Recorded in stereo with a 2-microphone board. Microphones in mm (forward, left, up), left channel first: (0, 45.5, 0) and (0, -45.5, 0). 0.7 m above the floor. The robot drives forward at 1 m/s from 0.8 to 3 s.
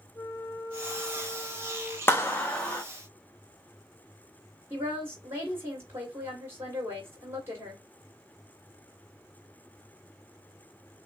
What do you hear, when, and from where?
0.1 s a flute: 35° left (ahead or behind), 0.5 m; by 2.0 s 10° left (ahead or behind), 1.4 m
2.1 s a clap: 25° left (ahead or behind), 0.7 m; by 2.8 s 15° left (ahead or behind), 1.2 m
4.7 s a woman speaking: 30° right (ahead or behind), 1.5 m